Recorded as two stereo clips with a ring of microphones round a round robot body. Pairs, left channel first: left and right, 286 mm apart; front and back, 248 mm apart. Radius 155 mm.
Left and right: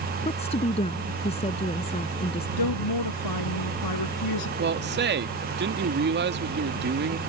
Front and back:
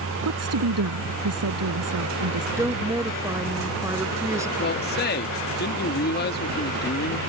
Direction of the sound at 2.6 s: 100° left.